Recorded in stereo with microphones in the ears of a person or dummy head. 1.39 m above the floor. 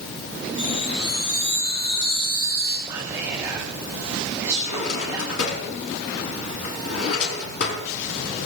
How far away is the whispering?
About 1.4 m.